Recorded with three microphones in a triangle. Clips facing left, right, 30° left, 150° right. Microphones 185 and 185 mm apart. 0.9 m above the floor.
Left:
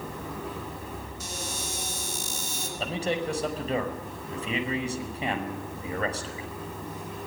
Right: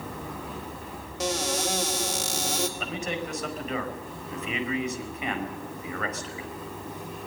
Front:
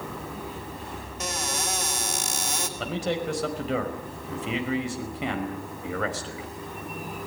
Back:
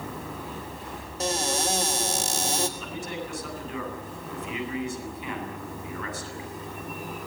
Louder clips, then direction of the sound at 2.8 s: Left 3 dB, front 6 dB; 30° left.